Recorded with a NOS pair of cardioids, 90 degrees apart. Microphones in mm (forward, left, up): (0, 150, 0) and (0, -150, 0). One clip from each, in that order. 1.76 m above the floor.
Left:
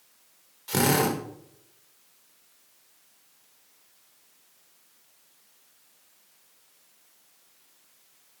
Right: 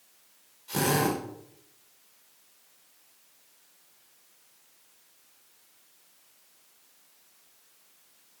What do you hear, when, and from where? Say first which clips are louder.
0.7 s a drill: left 3 dB; 60° left, 5.5 m